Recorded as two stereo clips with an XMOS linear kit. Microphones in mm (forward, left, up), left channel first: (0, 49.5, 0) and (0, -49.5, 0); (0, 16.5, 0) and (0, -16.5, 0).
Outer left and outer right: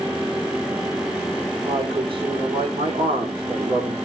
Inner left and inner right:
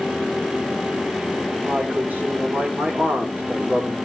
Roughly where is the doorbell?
I don't hear a doorbell.